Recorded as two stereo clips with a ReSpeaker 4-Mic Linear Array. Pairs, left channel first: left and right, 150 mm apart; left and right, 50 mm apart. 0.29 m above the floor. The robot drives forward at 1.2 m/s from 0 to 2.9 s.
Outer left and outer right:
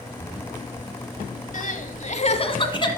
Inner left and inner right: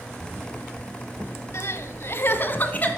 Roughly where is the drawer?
Left.